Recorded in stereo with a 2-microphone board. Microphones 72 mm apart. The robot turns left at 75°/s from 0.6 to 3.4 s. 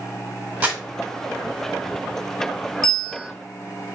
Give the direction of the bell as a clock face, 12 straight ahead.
6 o'clock.